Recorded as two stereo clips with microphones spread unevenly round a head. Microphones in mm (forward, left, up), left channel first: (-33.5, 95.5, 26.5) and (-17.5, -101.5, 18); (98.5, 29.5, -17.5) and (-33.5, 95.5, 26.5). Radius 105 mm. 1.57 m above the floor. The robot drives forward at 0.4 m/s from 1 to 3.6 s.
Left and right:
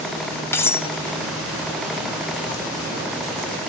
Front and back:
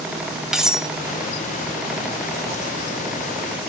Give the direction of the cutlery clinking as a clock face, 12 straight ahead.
7 o'clock.